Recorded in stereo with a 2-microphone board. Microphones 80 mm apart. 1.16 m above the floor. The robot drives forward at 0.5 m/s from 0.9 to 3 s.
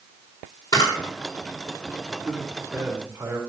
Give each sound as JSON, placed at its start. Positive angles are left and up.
{"t": 0.7, "sound": "a camera shutter", "side_deg": 75, "distance_m": 4.5}
{"t": 2.1, "sound": "a man speaking", "side_deg": -25, "distance_m": 3.0}